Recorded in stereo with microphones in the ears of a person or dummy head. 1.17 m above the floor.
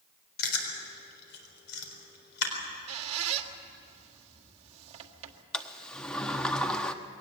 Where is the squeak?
40° right (ahead or behind), 1.7 m.